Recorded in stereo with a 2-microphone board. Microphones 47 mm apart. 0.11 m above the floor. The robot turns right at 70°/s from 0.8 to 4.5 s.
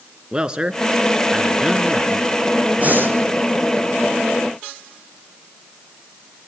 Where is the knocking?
I don't hear knocking.